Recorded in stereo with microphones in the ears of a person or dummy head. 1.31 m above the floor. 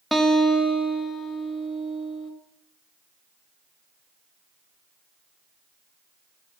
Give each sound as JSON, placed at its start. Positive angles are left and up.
{"t": 0.1, "sound": "a guitar", "side_deg": 0, "distance_m": 1.7}